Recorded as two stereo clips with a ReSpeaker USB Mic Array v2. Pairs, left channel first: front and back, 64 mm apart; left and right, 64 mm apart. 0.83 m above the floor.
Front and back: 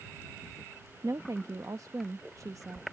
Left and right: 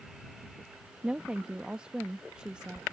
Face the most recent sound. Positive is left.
turn(degrees=-165)